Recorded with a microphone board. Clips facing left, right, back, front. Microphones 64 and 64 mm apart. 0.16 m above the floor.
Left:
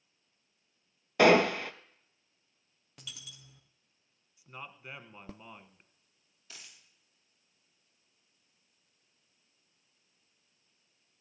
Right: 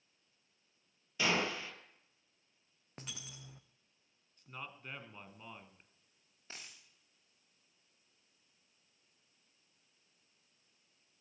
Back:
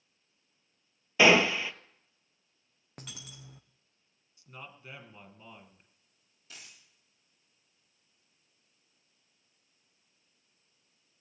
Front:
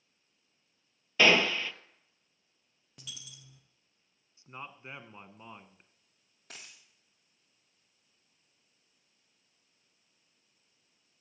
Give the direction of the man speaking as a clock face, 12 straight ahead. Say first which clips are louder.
Left 2 dB, front 3 dB; 11 o'clock.